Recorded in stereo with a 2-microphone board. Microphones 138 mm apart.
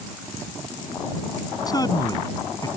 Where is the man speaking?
30° left (ahead or behind); by 2.7 s 25° left (ahead or behind).